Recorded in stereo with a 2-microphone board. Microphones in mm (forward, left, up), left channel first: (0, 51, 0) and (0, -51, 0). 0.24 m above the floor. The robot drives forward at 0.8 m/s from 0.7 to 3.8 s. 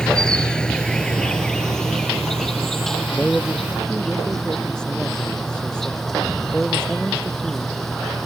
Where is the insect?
5° left (ahead or behind).